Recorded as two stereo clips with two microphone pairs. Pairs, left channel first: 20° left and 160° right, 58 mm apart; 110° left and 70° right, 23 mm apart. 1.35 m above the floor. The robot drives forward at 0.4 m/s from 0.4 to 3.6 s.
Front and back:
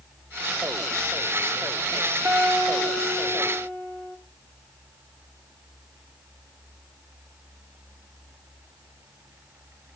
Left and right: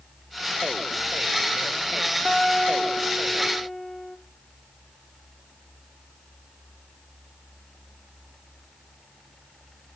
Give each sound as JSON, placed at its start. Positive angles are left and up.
{"t": 2.2, "sound": "a guitar", "azimuth_deg": -145, "distance_m": 3.0}